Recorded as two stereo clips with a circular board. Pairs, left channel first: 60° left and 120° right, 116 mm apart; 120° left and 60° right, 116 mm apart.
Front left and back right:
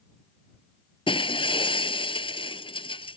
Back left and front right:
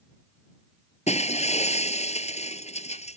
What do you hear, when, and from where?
1.1 s breaking glass: 100° left